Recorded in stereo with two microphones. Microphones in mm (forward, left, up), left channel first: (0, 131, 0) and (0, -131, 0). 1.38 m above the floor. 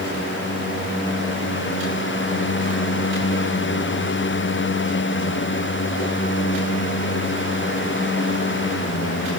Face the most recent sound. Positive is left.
No sound to turn to.